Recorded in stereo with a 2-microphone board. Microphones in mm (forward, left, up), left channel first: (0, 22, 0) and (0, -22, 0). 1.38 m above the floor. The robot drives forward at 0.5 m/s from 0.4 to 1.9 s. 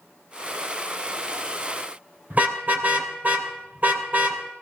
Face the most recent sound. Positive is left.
turn(degrees=-40)  # may be behind; listen again after turning